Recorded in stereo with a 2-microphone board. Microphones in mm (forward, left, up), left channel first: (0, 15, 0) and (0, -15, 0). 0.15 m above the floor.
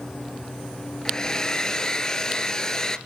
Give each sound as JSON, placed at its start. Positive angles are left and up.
{"t": 1.1, "sound": "a hair dryer", "side_deg": 20, "distance_m": 0.8}